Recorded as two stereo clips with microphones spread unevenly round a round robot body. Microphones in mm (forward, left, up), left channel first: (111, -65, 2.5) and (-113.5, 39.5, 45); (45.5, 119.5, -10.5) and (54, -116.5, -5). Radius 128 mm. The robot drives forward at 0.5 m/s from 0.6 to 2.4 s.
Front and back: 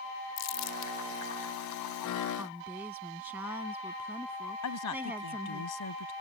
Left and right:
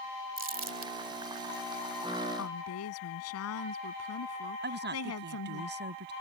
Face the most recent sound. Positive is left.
turn(degrees=-45)